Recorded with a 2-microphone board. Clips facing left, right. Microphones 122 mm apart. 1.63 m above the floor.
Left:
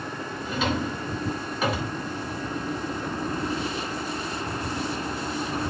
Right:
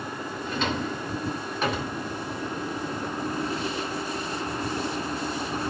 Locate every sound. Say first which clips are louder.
0.5 s a drawer: left 2 dB; 5° left (ahead or behind), 3 m